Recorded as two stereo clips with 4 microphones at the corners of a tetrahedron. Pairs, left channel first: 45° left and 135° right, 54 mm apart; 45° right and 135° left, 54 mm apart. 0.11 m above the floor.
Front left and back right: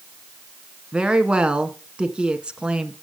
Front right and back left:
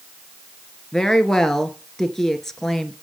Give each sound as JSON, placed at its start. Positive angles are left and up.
{"t": 0.9, "sound": "a woman speaking", "azimuth_deg": -110, "distance_m": 1.1}